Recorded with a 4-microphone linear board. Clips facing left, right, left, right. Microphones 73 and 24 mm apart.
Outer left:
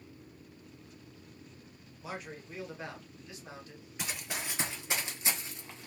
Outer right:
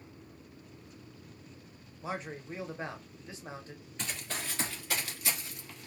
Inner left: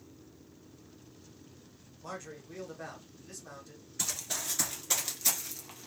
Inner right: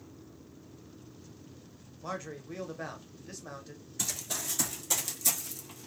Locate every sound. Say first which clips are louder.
2.0 s a man speaking: outer right 4 dB, inner right 4 dB; 30° right (ahead or behind), 0.9 m
4.0 s running footsteps: even, even; 10° left (ahead or behind), 1.1 m; by 5.9 s 30° left (ahead or behind), 1.2 m